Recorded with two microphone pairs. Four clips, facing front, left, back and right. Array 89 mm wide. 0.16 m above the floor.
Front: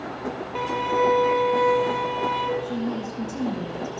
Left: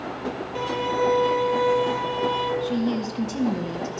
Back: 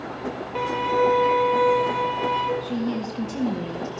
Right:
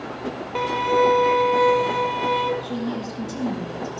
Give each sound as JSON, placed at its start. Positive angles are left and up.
{"t": 0.6, "sound": "a violin", "azimuth_deg": -95, "distance_m": 1.0}
{"t": 2.6, "sound": "a woman speaking", "azimuth_deg": 130, "distance_m": 1.6}